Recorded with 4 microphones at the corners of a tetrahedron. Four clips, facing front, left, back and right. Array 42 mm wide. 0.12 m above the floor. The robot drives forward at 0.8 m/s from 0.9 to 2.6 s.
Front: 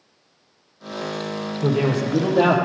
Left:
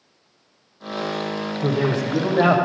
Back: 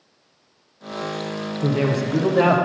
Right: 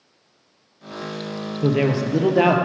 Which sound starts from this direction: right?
A man speaking, at 1.6 s.